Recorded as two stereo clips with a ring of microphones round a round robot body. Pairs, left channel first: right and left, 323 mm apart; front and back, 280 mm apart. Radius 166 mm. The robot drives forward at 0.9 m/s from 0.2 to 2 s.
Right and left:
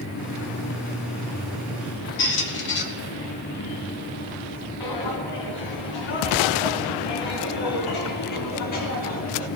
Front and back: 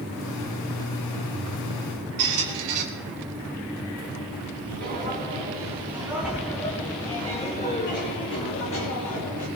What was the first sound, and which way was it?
A squeak, 145° right.